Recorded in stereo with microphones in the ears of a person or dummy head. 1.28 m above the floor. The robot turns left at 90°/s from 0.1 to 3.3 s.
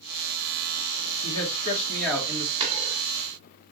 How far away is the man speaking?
About 2 m.